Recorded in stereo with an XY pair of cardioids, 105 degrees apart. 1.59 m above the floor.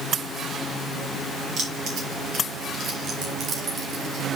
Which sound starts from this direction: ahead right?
Keys jangling, at 1.6 s.